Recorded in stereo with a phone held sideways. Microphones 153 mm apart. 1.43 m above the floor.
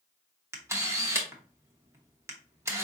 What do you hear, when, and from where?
0.5 s a camera shutter: 20° right (ahead or behind), 0.9 m